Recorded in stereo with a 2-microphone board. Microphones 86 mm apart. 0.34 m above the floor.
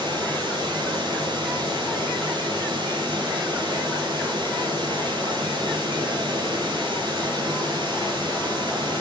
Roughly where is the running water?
Right.